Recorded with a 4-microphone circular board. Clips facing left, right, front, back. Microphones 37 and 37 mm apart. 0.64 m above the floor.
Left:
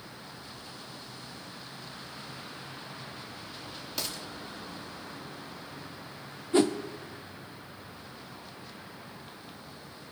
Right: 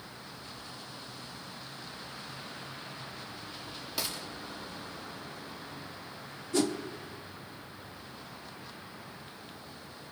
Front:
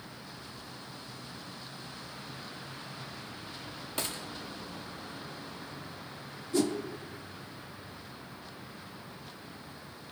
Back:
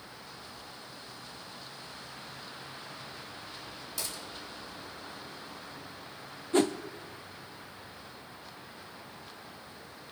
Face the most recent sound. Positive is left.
turn(degrees=140)